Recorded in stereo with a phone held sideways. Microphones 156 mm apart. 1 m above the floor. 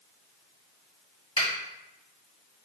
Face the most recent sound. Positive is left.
turn(degrees=45)  # may be behind; listen again after turning